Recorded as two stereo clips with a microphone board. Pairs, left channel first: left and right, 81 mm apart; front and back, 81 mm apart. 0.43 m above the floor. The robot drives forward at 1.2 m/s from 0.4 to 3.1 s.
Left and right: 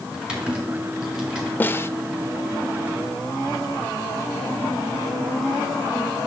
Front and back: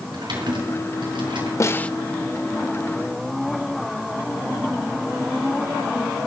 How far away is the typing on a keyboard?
About 4.5 m.